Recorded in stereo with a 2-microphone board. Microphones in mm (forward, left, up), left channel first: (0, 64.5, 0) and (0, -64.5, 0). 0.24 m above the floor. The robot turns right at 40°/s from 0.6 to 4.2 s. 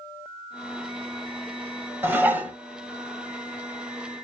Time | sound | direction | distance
2.0 | dishes clattering | 15° right (ahead or behind) | 0.7 m